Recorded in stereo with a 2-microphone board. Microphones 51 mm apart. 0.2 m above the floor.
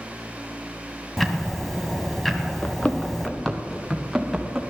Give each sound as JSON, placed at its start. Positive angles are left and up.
{"t": 1.2, "sound": "ticking", "side_deg": 5, "distance_m": 1.3}
{"t": 2.6, "sound": "running footsteps", "side_deg": 25, "distance_m": 1.1}